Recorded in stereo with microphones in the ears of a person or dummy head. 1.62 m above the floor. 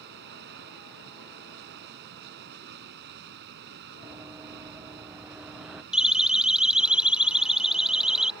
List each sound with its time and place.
0.0 s running water: 55° right (ahead or behind)
4.0 s running footsteps: 15° right (ahead or behind); by 5.8 s 5° right (ahead or behind)
5.9 s a siren: 5° right (ahead or behind)